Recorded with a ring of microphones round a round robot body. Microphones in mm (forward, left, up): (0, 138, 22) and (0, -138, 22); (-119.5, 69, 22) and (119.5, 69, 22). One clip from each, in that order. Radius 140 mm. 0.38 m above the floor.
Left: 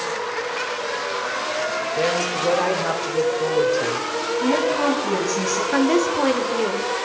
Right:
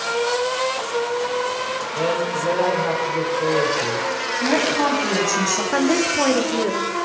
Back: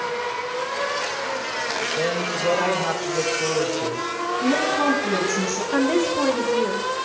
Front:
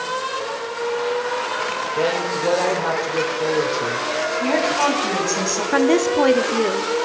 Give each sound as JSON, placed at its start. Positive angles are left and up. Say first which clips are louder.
{"t": 2.0, "sound": "a woman speaking", "louder": "even, front 3 dB", "azimuth_deg": 70, "distance_m": 1.7}
{"t": 4.4, "sound": "a woman speaking", "louder": "right 1 dB, front 1 dB", "azimuth_deg": -20, "distance_m": 3.5}
{"t": 5.7, "sound": "a woman speaking", "louder": "left 1 dB, front 4 dB", "azimuth_deg": 15, "distance_m": 1.0}